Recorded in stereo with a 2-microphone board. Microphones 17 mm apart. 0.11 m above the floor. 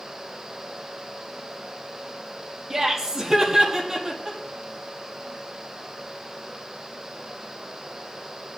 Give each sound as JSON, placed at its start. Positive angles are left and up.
{"t": 2.7, "sound": "laughter", "side_deg": -25, "distance_m": 4.0}